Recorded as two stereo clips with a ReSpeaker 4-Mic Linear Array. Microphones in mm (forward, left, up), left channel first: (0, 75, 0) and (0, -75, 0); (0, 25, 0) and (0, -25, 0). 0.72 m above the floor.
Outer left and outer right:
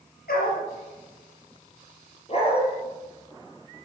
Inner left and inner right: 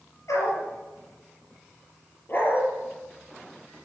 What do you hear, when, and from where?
0.3 s a dog barking: 85° left, 4.5 m
2.3 s a dog barking: 40° left (ahead or behind), 4.5 m